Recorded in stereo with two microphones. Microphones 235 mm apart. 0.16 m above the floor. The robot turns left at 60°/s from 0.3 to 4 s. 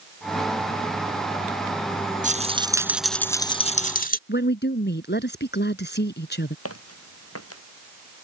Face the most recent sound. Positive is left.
turn(degrees=85)